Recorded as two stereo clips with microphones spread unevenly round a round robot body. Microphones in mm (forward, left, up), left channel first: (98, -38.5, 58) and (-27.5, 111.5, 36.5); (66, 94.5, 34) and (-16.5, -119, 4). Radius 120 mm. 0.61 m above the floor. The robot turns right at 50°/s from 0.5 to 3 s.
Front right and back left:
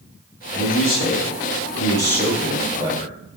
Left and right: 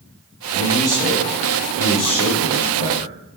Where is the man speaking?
50° right, 7 m; by 3.1 s 70° left, 7 m.